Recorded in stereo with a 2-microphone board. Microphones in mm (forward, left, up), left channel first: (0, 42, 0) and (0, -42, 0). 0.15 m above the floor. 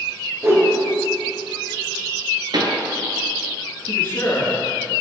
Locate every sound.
0.4 s a whoosh: 30° right (ahead or behind), 2 m
2.5 s a pop: 60° right (ahead or behind), 1.1 m
3.8 s a man speaking: 35° left (ahead or behind), 3 m